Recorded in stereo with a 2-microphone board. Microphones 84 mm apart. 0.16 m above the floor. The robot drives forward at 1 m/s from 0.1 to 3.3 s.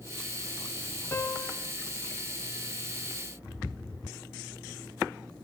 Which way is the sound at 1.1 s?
30° left (ahead or behind).